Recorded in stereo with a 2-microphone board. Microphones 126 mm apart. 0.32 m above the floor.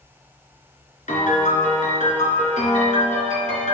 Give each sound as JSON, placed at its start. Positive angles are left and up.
{"t": 1.1, "sound": "a piano", "side_deg": 75, "distance_m": 2.5}